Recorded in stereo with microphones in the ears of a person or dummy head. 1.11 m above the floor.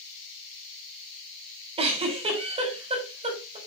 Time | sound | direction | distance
1.8 | a giggle | 35° right (ahead or behind) | 3 m